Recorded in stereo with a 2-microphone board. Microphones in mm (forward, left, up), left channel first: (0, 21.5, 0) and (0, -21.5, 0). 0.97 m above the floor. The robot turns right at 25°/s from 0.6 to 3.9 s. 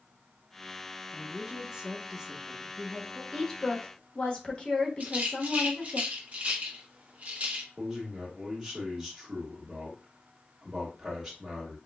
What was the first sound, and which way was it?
A woman speaking, 20° right (ahead or behind).